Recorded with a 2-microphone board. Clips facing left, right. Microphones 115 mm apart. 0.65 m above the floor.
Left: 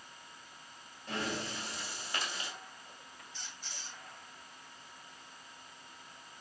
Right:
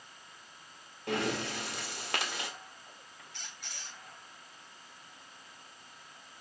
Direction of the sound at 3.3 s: 65° right (ahead or behind).